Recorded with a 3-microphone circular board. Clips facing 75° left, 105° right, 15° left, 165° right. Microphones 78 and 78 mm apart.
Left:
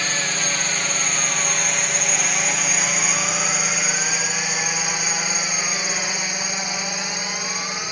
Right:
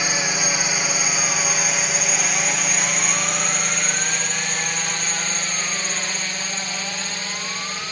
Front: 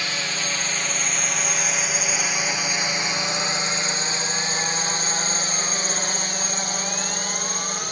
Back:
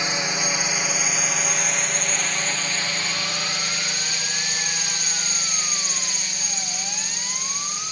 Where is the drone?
155° right; by 7.9 s 5° left.